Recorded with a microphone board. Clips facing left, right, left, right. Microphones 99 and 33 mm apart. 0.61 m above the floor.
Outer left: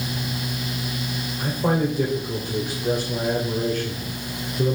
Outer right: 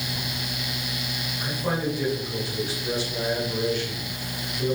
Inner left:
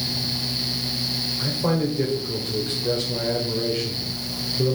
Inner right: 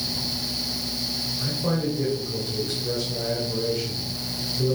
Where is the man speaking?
50° left (ahead or behind), 1.8 m.